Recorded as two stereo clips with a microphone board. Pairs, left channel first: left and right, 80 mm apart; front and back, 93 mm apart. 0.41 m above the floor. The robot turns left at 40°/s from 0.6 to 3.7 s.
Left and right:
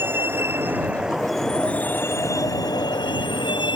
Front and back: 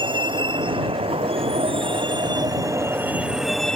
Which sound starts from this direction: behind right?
A vehicle, at 0.0 s.